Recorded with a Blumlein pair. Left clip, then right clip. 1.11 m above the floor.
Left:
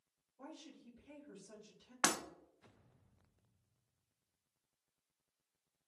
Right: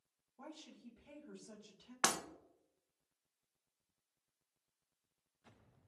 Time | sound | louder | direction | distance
0.4 | a woman speaking | even | 30° right | 1.5 m
2.0 | breaking glass | even | straight ahead | 0.6 m